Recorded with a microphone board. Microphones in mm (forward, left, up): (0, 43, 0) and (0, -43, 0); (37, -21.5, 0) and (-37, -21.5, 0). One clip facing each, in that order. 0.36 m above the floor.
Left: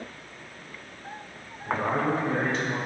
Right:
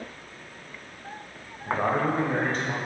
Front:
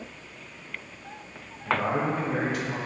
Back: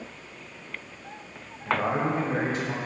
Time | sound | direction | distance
1.7 | a man speaking | 110° right | 1.4 m